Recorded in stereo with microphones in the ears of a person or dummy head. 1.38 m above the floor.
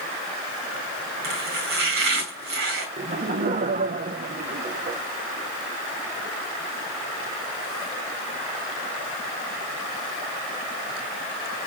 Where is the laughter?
40° right (ahead or behind), 0.8 m.